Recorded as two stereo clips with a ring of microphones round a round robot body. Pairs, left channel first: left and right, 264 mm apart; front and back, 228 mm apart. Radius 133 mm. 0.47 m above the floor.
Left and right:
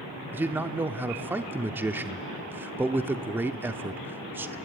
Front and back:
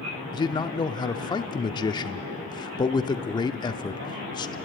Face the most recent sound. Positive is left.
turn(degrees=-25)